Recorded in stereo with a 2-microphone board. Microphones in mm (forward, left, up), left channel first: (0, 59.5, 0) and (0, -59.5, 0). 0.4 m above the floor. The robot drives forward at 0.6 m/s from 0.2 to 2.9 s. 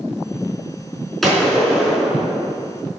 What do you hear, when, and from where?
1.2 s a gunshot: centre (ahead or behind), 3.5 m